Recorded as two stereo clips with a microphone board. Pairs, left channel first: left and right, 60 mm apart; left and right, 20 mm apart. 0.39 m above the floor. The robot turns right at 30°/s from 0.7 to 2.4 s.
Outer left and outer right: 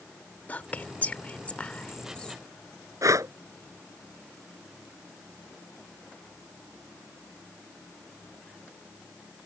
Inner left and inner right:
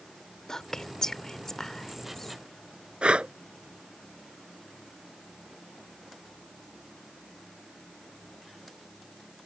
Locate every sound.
0.5 s whispering: 30° left (ahead or behind); by 2.4 s 15° left (ahead or behind)
3.0 s breathing: 70° right (ahead or behind)